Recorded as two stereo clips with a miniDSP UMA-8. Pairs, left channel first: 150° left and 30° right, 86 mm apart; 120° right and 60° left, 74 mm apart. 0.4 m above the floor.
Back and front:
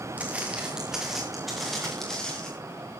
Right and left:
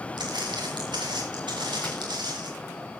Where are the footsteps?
40° left, 3.5 m; by 2.5 s 70° left, 5.5 m.